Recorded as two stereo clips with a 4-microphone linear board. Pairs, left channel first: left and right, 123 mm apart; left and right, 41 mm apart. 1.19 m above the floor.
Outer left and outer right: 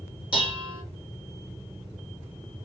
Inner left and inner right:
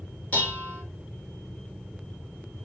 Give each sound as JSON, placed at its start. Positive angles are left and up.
{"t": 0.3, "sound": "dishes clattering", "side_deg": 40, "distance_m": 1.6}